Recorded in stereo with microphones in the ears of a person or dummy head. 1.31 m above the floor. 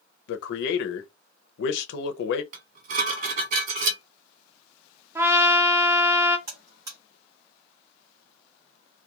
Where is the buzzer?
25° right (ahead or behind), 1.3 m.